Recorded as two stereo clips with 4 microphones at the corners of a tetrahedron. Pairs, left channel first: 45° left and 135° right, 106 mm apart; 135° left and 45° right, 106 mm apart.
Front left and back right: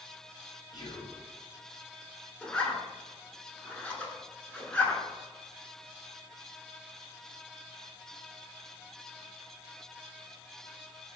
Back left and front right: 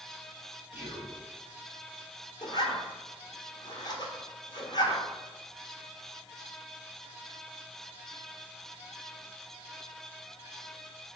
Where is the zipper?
120° left, 0.7 m.